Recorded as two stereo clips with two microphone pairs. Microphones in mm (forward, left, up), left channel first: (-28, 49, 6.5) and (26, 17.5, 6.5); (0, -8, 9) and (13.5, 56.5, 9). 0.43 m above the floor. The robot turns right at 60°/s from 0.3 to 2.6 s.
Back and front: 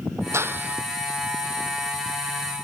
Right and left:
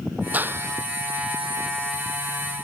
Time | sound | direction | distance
0.3 | a clap | 15° left | ?